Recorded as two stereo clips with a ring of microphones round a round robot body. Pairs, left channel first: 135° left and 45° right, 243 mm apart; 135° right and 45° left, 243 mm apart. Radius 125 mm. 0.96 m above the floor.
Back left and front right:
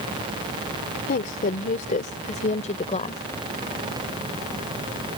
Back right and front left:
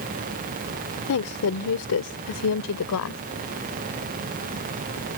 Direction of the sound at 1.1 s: 170° right.